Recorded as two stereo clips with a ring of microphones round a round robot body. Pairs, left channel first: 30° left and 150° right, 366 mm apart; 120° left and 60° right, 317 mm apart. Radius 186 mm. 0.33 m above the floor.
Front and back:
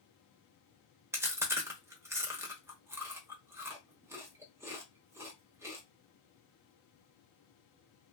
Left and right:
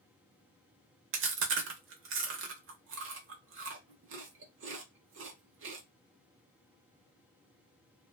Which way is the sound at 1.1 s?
70° right.